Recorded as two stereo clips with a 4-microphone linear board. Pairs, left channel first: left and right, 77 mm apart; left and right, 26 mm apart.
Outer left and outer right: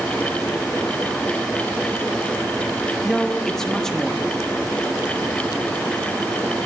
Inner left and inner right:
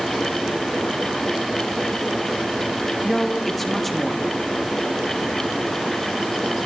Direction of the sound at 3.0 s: 5° left (ahead or behind).